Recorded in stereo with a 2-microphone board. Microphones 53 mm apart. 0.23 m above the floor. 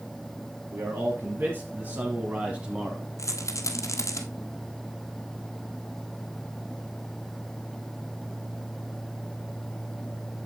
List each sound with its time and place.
0.7 s a man speaking: 55° right (ahead or behind), 2.5 m; by 3.1 s 10° right (ahead or behind), 1.4 m
3.2 s a rattle: 70° left (ahead or behind), 1.4 m